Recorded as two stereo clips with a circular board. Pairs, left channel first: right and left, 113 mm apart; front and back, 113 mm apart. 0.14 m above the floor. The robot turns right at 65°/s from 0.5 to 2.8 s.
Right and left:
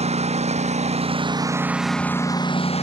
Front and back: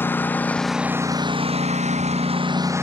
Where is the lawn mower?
75° left; by 2.8 s 110° right.